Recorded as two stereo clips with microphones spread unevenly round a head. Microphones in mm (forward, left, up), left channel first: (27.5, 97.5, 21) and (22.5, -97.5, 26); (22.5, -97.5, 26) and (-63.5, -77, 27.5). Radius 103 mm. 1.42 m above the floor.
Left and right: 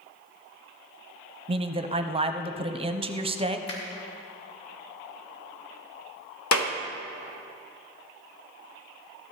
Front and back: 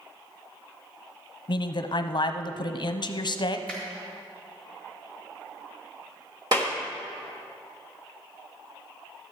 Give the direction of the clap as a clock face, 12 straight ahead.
9 o'clock.